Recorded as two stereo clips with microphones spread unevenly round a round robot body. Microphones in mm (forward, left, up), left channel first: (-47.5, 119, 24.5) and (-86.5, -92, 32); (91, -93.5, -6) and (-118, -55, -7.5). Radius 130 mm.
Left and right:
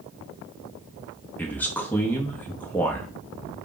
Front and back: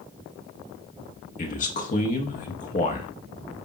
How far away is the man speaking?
About 0.5 m.